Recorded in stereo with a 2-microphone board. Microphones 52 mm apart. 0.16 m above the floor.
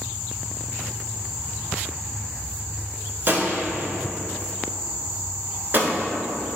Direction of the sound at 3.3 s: 45° right (ahead or behind).